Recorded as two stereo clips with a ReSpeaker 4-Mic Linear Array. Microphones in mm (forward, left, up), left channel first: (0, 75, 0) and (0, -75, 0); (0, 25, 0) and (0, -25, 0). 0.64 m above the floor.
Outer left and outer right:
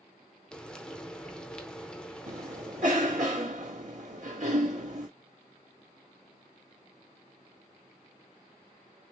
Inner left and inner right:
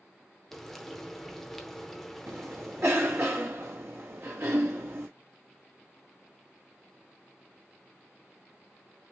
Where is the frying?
5° left (ahead or behind), 0.8 m.